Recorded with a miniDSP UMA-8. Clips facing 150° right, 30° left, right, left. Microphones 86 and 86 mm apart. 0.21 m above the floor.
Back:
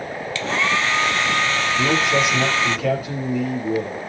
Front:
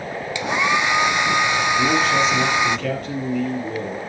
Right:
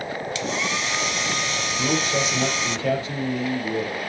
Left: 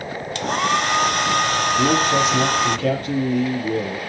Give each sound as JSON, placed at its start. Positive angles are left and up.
{"t": 0.3, "sound": "a hair dryer", "azimuth_deg": 100, "distance_m": 0.6}
{"t": 1.8, "sound": "a man speaking", "azimuth_deg": 125, "distance_m": 9.0}